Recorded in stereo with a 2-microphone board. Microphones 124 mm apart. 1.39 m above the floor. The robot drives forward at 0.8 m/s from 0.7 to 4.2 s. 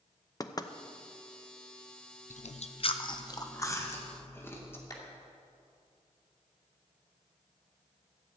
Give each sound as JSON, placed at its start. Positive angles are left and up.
{"t": 0.4, "sound": "knocking", "side_deg": 30, "distance_m": 0.6}
{"t": 2.3, "sound": "chewing", "side_deg": 75, "distance_m": 0.5}
{"t": 4.9, "sound": "a clap", "side_deg": 30, "distance_m": 2.5}